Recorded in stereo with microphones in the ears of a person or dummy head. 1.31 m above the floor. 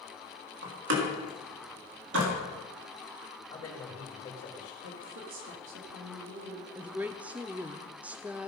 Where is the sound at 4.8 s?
70° right (ahead or behind), 2.5 m.